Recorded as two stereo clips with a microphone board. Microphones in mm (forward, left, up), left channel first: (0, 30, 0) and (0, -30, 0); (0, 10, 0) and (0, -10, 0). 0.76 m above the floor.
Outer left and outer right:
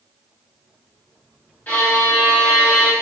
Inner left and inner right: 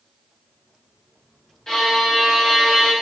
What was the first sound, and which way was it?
A violin, 25° left (ahead or behind).